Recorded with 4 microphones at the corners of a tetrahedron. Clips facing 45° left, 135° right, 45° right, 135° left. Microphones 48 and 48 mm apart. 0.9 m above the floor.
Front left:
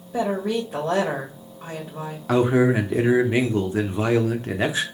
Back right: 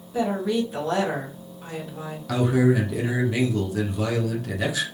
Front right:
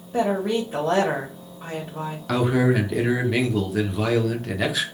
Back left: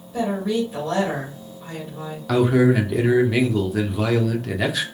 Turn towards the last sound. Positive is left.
turn(degrees=45)